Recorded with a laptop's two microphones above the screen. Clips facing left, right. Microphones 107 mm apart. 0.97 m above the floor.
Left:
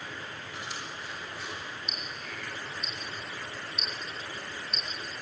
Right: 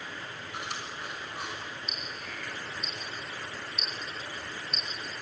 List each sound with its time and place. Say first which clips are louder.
0.5 s chewing: right 3 dB; 65° right (ahead or behind), 6 m
1.9 s ticking: even; 40° right (ahead or behind), 6 m